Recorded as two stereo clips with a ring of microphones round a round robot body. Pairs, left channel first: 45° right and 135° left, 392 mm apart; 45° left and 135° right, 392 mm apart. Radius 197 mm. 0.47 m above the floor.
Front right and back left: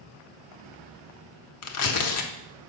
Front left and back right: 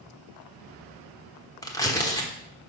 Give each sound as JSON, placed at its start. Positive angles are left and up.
{"t": 1.6, "sound": "tearing paper", "azimuth_deg": -30, "distance_m": 1.2}